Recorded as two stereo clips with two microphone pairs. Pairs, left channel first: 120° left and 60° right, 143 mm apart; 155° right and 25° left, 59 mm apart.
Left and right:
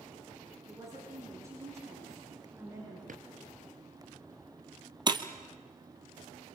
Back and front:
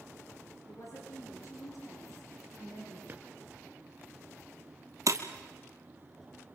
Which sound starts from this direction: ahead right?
A drawer, at 3.1 s.